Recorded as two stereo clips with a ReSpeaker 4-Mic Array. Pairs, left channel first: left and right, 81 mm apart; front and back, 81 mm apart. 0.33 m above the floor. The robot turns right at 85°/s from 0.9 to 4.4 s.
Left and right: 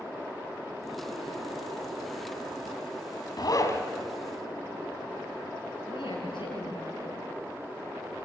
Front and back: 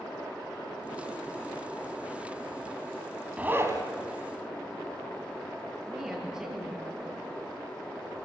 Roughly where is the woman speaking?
Left.